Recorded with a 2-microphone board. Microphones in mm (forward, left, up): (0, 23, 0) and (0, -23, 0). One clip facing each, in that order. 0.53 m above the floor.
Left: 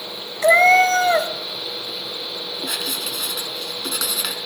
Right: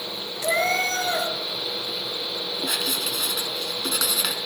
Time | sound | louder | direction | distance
0.4 | a cat meowing | left 10 dB | 50° left (ahead or behind) | 1.9 m
2.6 | writing | even | centre (ahead or behind) | 4 m